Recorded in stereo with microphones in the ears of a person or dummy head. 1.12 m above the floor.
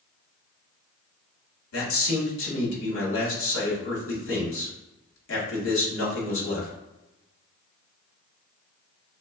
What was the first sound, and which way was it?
A man speaking, 70° left (ahead or behind).